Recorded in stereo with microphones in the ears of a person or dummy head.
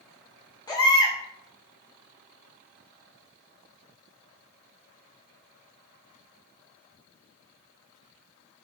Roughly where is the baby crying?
Centre.